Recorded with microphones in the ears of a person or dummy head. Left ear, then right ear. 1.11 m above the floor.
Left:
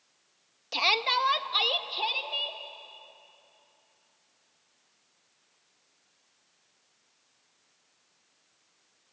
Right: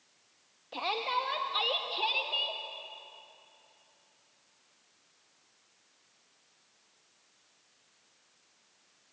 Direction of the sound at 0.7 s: 70° left (ahead or behind).